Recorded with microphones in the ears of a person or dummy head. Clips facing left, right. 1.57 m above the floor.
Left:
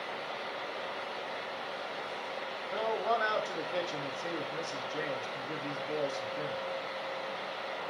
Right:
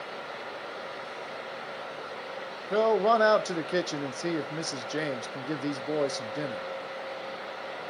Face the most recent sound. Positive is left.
turn(degrees=-65)  # may be behind; listen again after turning